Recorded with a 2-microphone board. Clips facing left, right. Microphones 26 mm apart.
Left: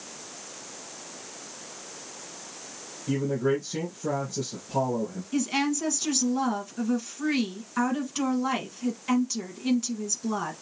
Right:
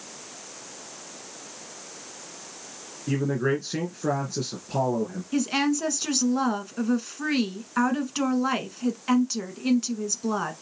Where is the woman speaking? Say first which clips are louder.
Right 2 dB; 25° right (ahead or behind), 1.3 m.